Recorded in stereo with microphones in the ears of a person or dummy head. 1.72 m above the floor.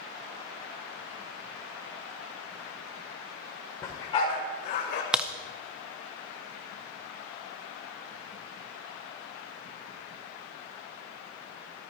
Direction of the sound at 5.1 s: 5° right (ahead or behind).